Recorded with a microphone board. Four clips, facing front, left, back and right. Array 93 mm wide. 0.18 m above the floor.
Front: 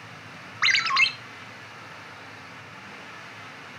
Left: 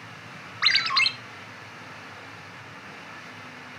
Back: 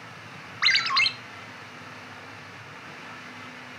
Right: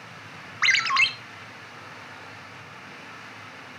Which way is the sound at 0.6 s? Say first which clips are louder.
Right 3 dB, front 2 dB; 60° right.